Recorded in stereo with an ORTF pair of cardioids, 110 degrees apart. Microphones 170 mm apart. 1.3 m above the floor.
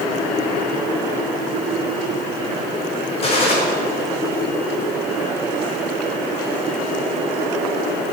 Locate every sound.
3.2 s a gunshot: 40° left, 4.5 m